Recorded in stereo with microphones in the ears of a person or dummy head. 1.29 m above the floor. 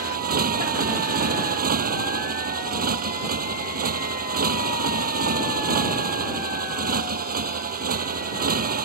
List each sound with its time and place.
0.0 s a motorcycle: 45° right (ahead or behind)